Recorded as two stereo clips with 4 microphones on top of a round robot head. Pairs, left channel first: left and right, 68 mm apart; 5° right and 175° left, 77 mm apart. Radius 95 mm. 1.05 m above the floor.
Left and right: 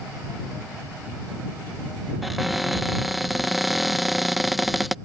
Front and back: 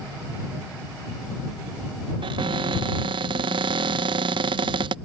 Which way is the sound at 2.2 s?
Straight behind.